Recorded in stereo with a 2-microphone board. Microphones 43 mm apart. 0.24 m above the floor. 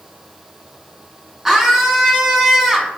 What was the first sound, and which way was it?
A scream, 15° right (ahead or behind).